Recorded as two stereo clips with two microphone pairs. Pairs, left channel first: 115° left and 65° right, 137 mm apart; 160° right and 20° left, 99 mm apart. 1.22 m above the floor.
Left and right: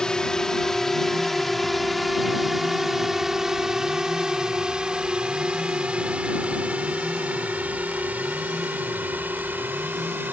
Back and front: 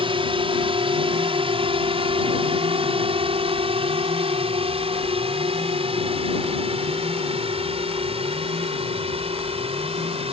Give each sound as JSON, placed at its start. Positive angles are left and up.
{"t": 0.0, "sound": "a drone", "azimuth_deg": 35}